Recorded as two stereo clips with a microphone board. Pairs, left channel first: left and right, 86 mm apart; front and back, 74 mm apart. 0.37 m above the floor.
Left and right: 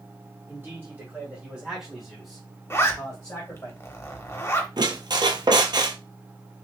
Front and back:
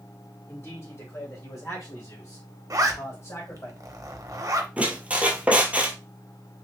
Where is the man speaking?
40° right, 2.0 m; by 3.7 s 30° left, 2 m.